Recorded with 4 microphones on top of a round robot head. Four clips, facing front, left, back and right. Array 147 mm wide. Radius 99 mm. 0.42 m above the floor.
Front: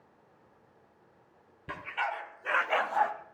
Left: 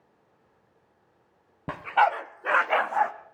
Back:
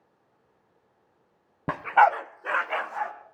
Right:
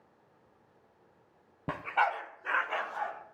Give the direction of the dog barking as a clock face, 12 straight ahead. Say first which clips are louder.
Left 7 dB, back 15 dB; 6 o'clock.